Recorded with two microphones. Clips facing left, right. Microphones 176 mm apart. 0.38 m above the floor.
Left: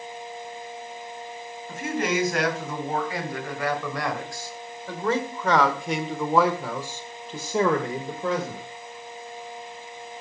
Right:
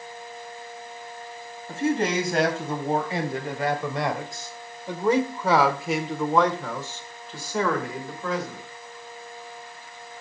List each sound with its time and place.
1.7 s a man speaking: 30° right (ahead or behind), 2.5 m; by 8.6 s 30° left (ahead or behind), 1.6 m